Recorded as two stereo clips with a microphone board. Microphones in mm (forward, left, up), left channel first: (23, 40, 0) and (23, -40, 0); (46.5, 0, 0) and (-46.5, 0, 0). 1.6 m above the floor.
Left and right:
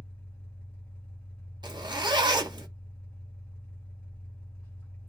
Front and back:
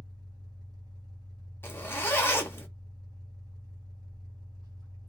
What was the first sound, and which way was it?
An engine running, 155° left.